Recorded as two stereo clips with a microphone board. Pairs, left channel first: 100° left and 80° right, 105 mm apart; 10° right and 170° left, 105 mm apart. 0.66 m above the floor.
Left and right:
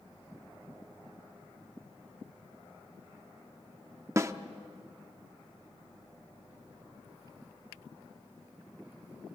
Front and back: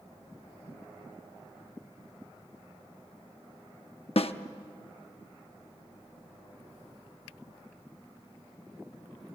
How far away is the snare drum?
About 0.8 m.